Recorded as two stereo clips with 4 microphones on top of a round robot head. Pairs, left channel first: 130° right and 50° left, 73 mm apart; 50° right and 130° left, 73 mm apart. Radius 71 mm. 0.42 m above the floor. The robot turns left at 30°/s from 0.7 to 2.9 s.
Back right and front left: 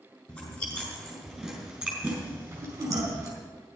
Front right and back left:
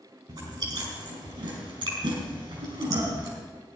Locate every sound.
0.3 s chewing: 165° left, 4.5 m; by 3.3 s 100° left, 4.5 m